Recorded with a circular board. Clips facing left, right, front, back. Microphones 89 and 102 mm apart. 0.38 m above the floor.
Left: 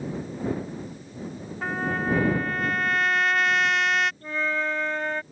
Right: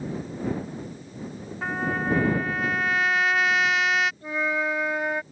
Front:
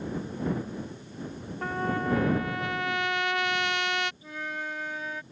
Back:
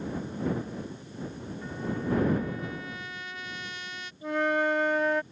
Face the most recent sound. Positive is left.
turn(degrees=-170)